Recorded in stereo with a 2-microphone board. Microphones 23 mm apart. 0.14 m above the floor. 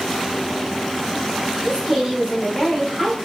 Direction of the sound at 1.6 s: 25° right (ahead or behind).